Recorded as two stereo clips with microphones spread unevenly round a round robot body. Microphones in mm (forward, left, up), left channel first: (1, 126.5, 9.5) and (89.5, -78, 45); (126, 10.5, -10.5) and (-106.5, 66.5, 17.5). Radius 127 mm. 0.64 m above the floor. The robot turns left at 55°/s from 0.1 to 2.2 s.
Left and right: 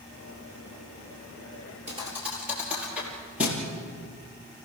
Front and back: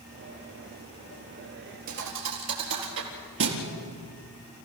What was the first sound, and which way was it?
A thud, 135° right.